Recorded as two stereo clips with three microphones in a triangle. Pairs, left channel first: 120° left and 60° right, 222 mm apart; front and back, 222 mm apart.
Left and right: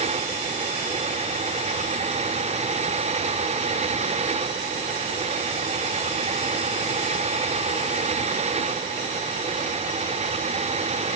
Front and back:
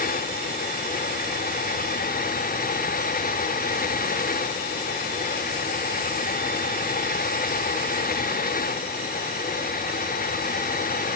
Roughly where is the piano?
No piano in this recording.